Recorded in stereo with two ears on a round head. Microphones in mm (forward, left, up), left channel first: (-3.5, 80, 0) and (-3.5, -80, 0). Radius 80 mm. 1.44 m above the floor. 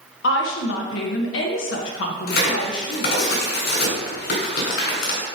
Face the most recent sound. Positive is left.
turn(degrees=60)  # may be behind; listen again after turning